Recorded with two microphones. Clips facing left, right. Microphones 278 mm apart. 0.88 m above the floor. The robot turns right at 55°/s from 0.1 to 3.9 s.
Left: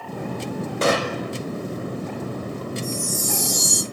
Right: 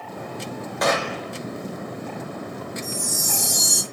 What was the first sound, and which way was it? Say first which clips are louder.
A gunshot: left 2 dB; 30° left (ahead or behind).